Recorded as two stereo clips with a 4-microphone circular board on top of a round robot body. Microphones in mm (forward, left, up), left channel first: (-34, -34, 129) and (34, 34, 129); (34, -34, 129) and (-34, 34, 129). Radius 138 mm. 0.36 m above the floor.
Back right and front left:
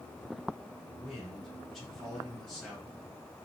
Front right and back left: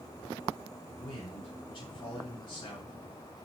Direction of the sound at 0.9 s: 50° right.